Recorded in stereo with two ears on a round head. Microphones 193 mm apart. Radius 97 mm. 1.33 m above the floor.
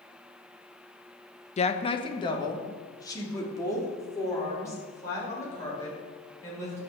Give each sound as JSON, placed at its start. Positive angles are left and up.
{"t": 1.6, "sound": "a woman speaking", "side_deg": 30, "distance_m": 0.9}